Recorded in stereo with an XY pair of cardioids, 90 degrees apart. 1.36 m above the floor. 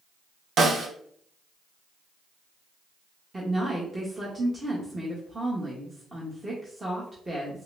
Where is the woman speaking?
20° right, 1.3 m.